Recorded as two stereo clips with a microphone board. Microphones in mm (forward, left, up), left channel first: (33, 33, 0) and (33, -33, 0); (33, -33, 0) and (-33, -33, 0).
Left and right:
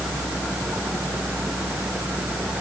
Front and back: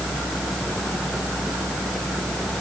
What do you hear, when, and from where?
Only background noise.